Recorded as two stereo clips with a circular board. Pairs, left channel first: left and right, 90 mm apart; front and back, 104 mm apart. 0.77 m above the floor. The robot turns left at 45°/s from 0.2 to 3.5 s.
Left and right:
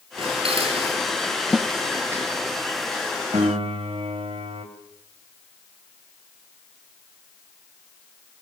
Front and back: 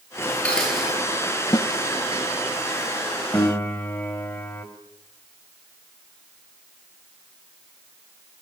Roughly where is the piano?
Ahead right.